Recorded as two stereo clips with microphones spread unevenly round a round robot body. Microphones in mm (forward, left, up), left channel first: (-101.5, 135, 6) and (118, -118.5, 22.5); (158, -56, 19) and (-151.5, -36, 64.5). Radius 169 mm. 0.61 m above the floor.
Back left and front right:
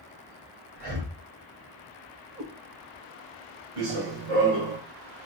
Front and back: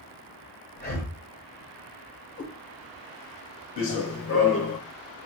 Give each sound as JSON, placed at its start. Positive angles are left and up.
{"t": 0.8, "sound": "breathing", "azimuth_deg": -65, "distance_m": 2.0}
{"t": 2.4, "sound": "a cat meowing", "azimuth_deg": -75, "distance_m": 2.5}
{"t": 3.8, "sound": "running footsteps", "azimuth_deg": -40, "distance_m": 1.9}